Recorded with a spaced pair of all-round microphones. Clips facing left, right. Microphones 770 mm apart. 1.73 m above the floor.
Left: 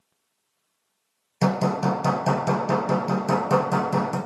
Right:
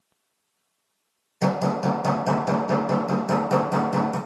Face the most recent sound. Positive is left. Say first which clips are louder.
# even
turn(degrees=40)  # may be behind; listen again after turning